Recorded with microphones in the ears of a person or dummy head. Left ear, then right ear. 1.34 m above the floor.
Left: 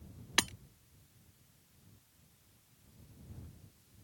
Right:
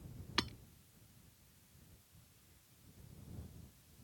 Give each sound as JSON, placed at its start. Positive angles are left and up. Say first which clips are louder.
{"t": 0.4, "sound": "hammering", "louder": "left 6 dB", "side_deg": 30}